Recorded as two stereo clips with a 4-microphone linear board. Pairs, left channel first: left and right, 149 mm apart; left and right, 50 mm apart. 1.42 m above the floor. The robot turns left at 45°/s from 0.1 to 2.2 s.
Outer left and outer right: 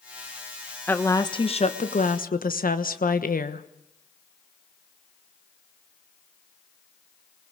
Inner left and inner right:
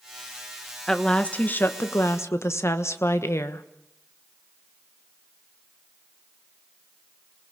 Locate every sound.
0.9 s a woman speaking: 170° left, 1.3 m; by 3.7 s 110° left, 1.3 m